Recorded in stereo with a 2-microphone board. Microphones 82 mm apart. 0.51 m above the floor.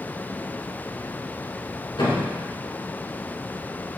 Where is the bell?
I don't hear a bell.